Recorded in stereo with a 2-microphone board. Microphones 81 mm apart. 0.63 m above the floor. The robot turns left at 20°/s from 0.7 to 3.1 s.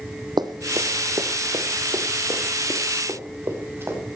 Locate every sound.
0.4 s running footsteps: 60° right (ahead or behind), 1.4 m; by 4.0 s 30° right (ahead or behind), 5 m